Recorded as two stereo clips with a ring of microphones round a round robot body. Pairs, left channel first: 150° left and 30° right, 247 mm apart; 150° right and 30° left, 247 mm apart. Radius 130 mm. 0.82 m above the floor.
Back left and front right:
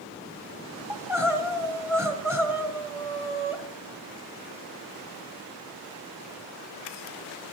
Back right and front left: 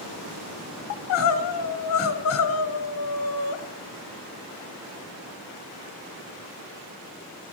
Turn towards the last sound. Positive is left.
turn(degrees=-110)